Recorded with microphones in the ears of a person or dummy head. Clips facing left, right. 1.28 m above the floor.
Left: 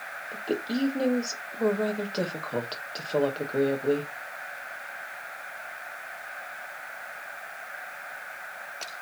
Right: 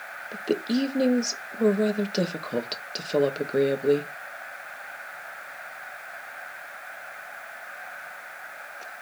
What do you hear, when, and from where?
0.3 s a woman speaking: 20° right (ahead or behind), 1.1 m